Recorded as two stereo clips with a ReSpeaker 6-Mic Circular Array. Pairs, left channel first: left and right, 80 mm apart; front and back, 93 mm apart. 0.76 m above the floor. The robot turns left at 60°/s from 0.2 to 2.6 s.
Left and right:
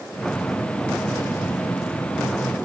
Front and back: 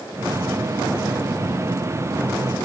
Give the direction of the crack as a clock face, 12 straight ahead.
I don't hear a crack.